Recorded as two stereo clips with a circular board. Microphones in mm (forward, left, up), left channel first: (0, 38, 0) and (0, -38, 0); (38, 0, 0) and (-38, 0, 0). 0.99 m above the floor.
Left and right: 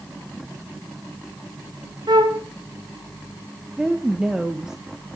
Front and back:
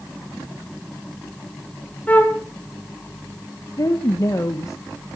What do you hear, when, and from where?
2.1 s a flute: 70° right, 1.6 m
3.8 s a woman speaking: 10° right, 1.0 m